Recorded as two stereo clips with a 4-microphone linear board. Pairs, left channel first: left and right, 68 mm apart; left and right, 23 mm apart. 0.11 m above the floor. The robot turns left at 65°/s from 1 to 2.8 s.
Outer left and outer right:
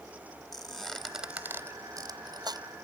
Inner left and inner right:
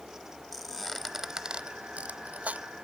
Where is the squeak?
Centre (ahead or behind), 0.8 m; by 2.6 s 75° right (ahead or behind), 0.8 m.